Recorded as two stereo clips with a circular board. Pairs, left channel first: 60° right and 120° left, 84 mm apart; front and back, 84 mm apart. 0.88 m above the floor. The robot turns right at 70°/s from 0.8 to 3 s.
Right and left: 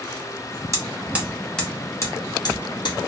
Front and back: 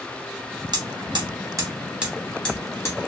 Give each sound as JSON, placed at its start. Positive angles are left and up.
{"t": 0.7, "sound": "hammering", "azimuth_deg": 170, "distance_m": 0.8}